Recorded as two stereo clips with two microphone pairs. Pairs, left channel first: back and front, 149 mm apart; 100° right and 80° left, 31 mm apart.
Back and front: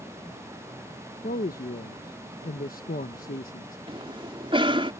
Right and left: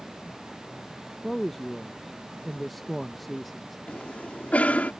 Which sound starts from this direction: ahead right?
A cough, at 3.9 s.